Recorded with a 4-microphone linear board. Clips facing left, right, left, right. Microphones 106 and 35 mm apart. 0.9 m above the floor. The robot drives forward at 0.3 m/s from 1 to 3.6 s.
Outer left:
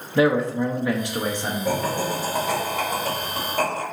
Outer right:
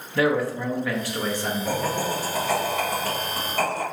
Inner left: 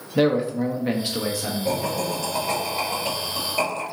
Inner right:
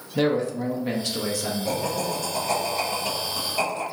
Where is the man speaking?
20° left (ahead or behind), 0.6 m; by 1.9 s 15° left (ahead or behind), 0.7 m.